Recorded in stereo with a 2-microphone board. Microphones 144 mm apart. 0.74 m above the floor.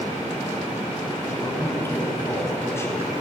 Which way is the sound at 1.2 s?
20° left (ahead or behind).